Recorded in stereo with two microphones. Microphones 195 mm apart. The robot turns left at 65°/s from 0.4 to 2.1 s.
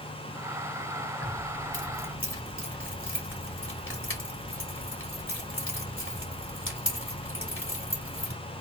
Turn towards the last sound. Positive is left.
turn(degrees=85)